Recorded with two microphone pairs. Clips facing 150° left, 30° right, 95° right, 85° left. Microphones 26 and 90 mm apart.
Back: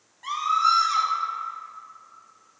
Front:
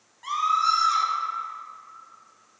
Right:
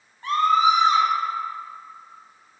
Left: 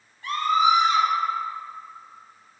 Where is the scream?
115° right, 1.2 m.